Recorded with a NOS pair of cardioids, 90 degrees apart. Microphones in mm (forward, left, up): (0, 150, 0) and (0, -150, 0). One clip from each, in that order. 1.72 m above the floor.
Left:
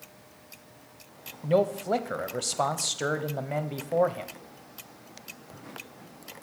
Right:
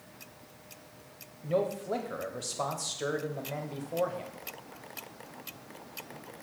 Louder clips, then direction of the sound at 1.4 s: Left 6 dB; 35° left.